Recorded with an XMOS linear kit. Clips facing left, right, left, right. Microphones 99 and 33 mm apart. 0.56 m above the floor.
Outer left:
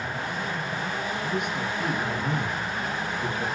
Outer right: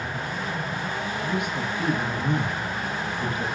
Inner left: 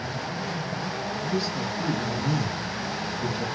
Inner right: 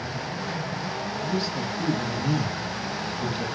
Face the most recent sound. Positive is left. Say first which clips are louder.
# outer right 2 dB, even
turn(degrees=-20)  # may be behind; listen again after turning